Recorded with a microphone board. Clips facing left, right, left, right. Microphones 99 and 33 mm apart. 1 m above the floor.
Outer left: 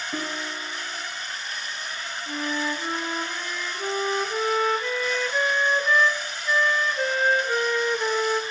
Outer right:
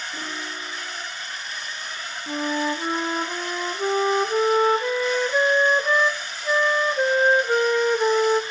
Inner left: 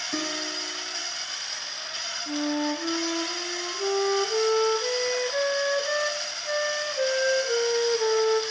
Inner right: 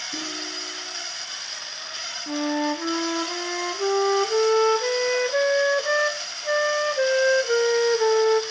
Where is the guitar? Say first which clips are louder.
Outer left 2 dB, inner left 4 dB; 90° left, 3.5 m.